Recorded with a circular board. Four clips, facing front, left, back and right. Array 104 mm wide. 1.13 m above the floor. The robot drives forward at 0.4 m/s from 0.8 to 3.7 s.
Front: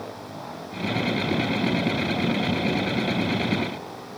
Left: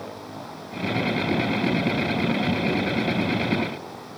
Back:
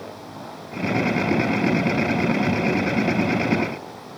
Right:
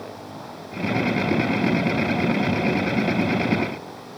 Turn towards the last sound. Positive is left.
No sound to turn to.